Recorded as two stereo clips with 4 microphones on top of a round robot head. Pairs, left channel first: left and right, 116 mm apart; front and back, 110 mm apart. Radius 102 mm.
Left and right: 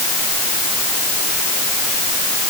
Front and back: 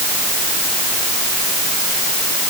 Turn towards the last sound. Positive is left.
No sound to turn to.